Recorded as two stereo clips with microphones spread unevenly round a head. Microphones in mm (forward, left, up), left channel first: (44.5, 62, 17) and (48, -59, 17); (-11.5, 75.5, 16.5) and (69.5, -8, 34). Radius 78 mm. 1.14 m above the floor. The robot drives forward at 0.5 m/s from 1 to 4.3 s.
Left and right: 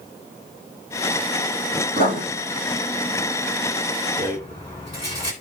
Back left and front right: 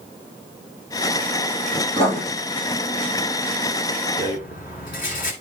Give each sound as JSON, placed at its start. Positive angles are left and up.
{"t": 1.9, "sound": "writing", "azimuth_deg": 95, "distance_m": 4.5}
{"t": 4.2, "sound": "a rattle", "azimuth_deg": 145, "distance_m": 1.8}